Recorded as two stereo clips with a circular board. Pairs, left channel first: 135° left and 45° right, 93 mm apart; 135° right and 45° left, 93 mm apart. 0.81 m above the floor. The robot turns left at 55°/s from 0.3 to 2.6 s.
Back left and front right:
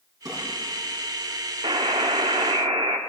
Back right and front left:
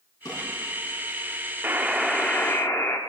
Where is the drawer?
90° right, 5 m; by 0.4 s 95° right, 5 m.